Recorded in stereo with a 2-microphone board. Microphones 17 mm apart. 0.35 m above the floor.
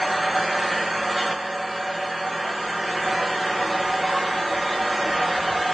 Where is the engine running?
10° right (ahead or behind), 5.5 m.